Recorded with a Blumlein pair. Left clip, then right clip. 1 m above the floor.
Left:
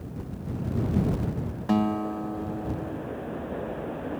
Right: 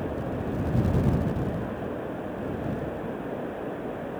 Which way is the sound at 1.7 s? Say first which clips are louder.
Left 5 dB; 45° left.